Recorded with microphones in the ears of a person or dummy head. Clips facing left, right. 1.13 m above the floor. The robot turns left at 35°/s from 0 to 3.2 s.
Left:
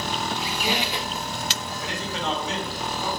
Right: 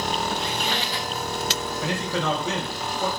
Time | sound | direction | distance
0.4 | a squeak | straight behind | 0.6 m
1.8 | a man speaking | 80° right | 3.5 m